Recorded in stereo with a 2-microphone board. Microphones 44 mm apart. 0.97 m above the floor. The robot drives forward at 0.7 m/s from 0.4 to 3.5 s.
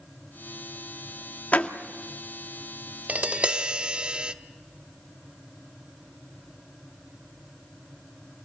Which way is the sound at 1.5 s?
35° left (ahead or behind).